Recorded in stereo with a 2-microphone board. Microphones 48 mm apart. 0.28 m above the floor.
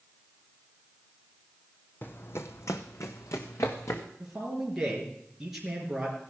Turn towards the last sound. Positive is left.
turn(degrees=-10)  # may be behind; listen again after turning